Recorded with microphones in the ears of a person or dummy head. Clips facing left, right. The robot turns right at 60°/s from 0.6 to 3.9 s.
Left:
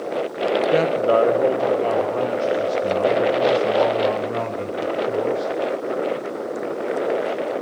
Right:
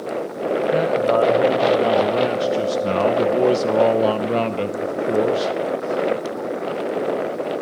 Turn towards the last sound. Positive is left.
turn(degrees=-45)